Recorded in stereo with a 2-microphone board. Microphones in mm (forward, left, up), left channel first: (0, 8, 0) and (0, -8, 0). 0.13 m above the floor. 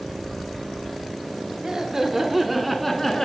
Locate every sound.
1.6 s laughter: 30° right (ahead or behind), 1.2 m; by 3.3 s 25° left (ahead or behind), 1.2 m